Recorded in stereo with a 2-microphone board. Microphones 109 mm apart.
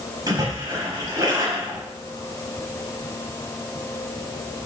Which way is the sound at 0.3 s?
35° right (ahead or behind).